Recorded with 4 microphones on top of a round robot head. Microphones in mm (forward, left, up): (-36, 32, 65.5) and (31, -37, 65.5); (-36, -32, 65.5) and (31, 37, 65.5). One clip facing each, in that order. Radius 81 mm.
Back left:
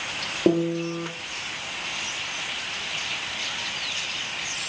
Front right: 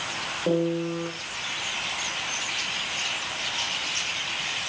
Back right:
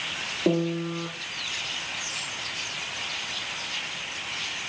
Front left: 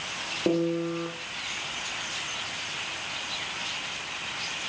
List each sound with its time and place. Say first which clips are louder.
0.5 s a piano: back left 3 dB, even; 140° left, 1.5 m